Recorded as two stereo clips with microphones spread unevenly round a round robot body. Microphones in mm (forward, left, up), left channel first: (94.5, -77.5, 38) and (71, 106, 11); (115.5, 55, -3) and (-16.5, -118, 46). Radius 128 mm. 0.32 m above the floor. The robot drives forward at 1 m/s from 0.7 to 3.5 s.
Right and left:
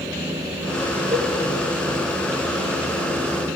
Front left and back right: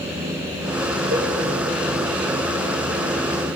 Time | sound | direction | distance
1.1 | a cowbell | 175° left | 5 m